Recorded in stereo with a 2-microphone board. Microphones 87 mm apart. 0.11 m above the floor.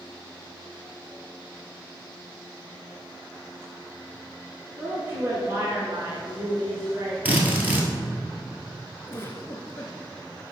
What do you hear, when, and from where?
4.8 s a woman speaking: 20° right (ahead or behind), 1.8 m; by 7.2 s 35° right (ahead or behind), 2 m
7.2 s a drill: 20° right (ahead or behind), 1.4 m
9.1 s a giggle: 25° left (ahead or behind), 0.8 m